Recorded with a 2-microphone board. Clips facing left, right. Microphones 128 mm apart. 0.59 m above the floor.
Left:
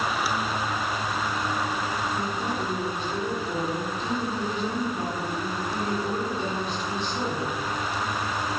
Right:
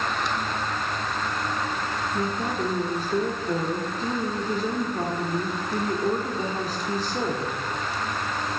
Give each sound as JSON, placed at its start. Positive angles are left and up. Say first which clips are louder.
{"t": 2.1, "sound": "a woman speaking", "louder": "right 2 dB", "side_deg": -40, "distance_m": 1.9}